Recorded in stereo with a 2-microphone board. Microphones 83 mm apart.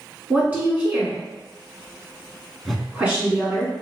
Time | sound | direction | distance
0.3 | a woman speaking | 20° right (ahead or behind) | 1.5 m
2.6 | a whoosh | centre (ahead or behind) | 0.6 m